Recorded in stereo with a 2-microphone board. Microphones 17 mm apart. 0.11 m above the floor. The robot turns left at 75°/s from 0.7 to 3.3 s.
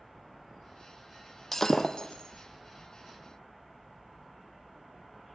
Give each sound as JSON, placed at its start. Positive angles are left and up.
{"t": 1.5, "sound": "breaking glass", "side_deg": 15, "distance_m": 1.5}